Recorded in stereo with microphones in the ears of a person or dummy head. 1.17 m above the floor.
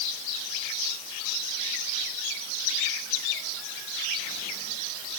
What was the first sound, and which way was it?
Only background noise.